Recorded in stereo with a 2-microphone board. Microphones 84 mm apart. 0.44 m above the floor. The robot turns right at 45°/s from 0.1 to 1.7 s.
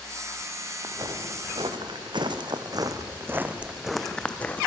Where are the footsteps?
45° right (ahead or behind), 3.5 m; by 4.7 s 20° left (ahead or behind), 2 m.